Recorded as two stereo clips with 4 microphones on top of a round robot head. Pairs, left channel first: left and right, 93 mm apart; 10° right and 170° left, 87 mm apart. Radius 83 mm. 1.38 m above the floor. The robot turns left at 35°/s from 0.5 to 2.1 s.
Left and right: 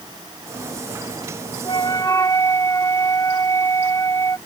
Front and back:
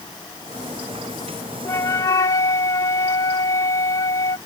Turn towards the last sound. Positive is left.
turn(degrees=25)